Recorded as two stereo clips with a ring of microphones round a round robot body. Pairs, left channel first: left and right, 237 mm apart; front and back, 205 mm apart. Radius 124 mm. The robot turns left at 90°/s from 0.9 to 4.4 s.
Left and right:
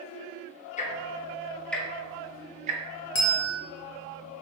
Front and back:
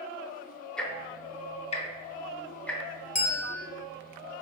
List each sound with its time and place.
0.8 s ticking: 85° left, 0.5 m; by 2.8 s 90° right, 0.5 m
3.1 s a bell: 50° left, 0.9 m; by 3.6 s 15° left, 0.9 m